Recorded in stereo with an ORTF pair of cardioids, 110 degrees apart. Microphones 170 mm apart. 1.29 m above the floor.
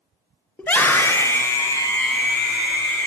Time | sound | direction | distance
0.6 | a scream | 10° left | 0.7 m